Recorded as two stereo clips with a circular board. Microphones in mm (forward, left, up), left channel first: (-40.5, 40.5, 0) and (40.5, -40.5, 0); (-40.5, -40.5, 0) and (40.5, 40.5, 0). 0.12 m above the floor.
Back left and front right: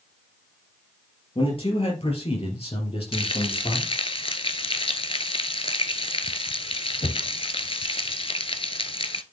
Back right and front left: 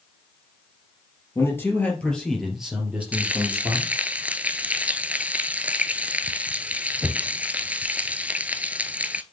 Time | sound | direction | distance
1.4 | a man speaking | 160° left | 3.5 m
3.1 | frying | 120° left | 0.6 m